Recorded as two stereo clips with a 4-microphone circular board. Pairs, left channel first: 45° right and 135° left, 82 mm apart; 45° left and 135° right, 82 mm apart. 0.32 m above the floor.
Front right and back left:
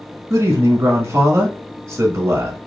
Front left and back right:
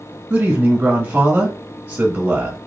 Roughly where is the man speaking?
Behind.